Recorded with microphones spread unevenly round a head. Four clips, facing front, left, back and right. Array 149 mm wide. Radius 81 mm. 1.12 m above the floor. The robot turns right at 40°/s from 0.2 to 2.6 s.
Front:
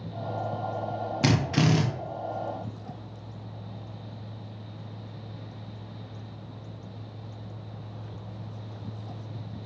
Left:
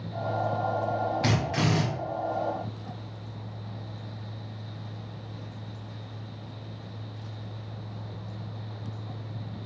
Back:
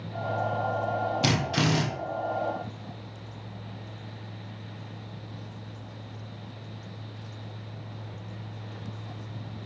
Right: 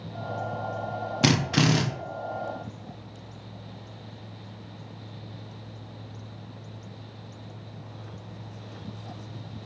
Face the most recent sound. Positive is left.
turn(degrees=-20)